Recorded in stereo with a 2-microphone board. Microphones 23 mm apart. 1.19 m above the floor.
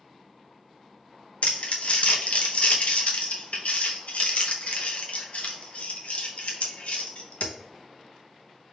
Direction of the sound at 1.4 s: 65° left (ahead or behind).